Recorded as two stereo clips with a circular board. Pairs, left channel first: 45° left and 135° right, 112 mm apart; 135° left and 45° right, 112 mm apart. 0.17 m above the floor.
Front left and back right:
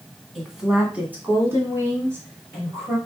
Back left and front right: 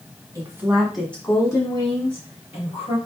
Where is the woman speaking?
45° right, 1.5 m; by 3.0 s 160° left, 3 m.